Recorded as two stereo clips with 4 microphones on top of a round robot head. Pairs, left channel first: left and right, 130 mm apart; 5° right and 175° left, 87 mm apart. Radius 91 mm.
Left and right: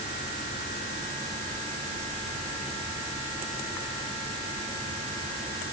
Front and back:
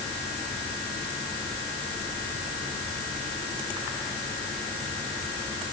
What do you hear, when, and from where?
Only background noise.